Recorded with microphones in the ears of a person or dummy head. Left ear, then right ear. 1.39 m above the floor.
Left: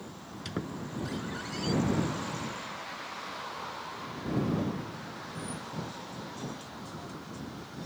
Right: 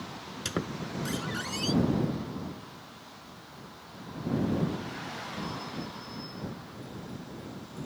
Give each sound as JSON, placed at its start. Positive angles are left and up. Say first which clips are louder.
{"t": 0.5, "sound": "a squeak", "louder": "right 4 dB", "side_deg": -30}